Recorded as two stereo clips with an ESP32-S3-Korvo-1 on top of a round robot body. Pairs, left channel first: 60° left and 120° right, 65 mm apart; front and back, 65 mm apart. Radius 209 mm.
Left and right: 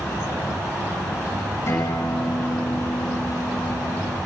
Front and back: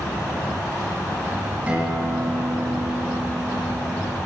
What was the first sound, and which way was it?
A guitar, 110° left.